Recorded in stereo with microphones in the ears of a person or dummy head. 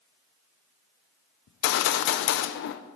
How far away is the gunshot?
About 0.6 m.